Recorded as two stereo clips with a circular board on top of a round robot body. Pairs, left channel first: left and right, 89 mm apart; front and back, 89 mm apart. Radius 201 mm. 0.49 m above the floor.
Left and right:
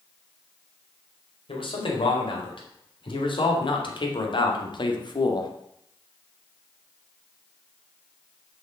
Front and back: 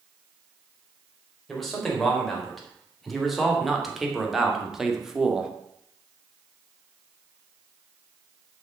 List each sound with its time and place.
1.5 s a man speaking: 85° left, 4 m; by 5.5 s 100° left, 1.9 m